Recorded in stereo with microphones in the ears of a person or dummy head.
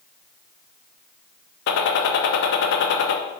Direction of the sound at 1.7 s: 60° left (ahead or behind).